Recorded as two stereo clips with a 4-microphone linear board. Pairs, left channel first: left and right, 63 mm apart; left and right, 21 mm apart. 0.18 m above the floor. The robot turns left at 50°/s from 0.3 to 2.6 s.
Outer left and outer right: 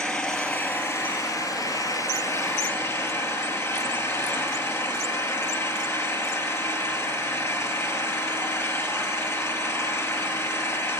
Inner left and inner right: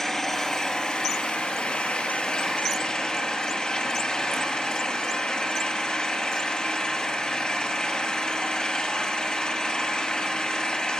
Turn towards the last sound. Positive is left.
turn(degrees=55)